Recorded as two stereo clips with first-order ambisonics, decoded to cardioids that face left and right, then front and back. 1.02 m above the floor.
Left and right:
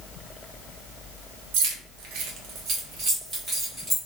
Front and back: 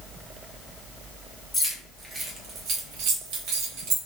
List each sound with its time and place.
1.5 s keys jangling: 85° right, 1.0 m; by 4.0 s 170° right, 1.7 m